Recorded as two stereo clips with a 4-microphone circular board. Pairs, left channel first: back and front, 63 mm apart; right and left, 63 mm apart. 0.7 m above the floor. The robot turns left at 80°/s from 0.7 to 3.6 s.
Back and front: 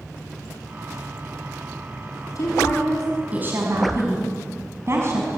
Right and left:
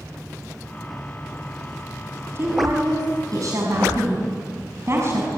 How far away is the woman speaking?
About 5.5 m.